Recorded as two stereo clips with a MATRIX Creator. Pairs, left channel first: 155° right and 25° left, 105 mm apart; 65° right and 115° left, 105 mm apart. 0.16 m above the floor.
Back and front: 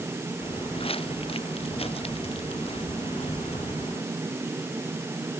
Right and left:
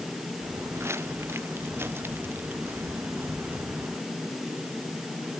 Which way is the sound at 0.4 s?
175° left.